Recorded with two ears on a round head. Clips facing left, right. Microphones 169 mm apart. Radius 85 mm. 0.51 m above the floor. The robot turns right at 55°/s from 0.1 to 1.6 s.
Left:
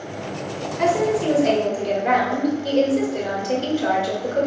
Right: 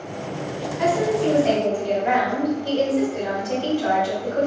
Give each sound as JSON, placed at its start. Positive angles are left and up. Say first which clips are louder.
{"t": 0.8, "sound": "a woman speaking", "louder": "left 1 dB", "azimuth_deg": 65, "distance_m": 1.9}